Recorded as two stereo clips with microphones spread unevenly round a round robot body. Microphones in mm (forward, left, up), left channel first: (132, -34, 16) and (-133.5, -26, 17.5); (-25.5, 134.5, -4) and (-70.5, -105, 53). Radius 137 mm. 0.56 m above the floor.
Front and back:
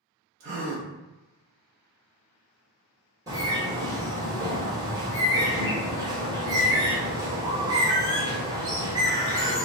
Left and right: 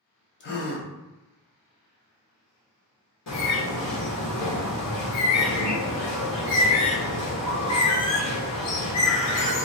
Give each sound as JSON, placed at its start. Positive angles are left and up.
{"t": 0.4, "sound": "a gasp", "azimuth_deg": 130, "distance_m": 0.7}
{"t": 3.3, "sound": "a bird", "azimuth_deg": 100, "distance_m": 1.3}